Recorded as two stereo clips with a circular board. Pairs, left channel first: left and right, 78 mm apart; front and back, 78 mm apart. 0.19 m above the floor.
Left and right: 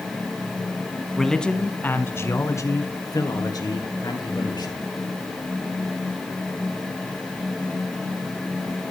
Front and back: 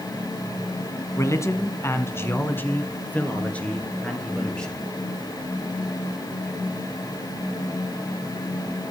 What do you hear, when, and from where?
1.2 s a man speaking: 5° left, 1.4 m; by 4.8 s 80° left, 3.5 m